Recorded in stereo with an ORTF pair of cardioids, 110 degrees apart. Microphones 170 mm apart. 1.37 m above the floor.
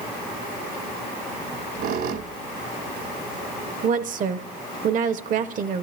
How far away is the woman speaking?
About 0.8 m.